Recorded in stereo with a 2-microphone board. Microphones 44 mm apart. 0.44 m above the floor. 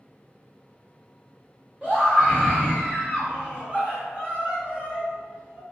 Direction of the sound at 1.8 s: 30° right (ahead or behind).